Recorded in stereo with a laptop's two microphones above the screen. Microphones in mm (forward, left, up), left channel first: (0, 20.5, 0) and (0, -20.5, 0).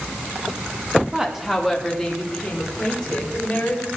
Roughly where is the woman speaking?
Centre.